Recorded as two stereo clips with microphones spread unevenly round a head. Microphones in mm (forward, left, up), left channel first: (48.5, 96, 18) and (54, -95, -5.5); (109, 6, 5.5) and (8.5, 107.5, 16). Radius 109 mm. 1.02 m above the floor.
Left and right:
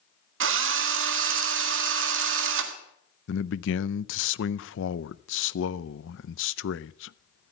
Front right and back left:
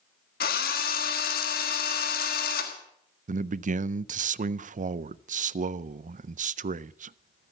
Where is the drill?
80° right, 1.5 m.